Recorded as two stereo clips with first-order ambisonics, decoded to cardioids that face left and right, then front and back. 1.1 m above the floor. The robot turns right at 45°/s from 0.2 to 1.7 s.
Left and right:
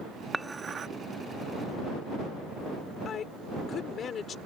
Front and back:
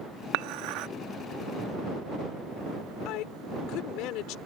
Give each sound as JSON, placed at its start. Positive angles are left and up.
{"t": 0.3, "sound": "dishes clattering", "azimuth_deg": -175}
{"t": 3.0, "sound": "a woman speaking", "azimuth_deg": 30}